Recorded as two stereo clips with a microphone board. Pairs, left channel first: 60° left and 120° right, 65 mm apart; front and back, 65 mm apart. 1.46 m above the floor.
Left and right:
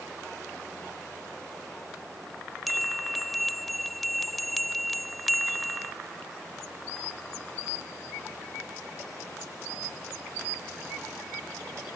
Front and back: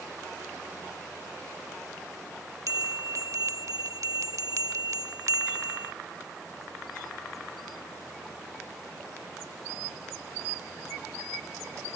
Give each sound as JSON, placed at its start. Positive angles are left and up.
{"t": 2.7, "sound": "a bell", "azimuth_deg": 150}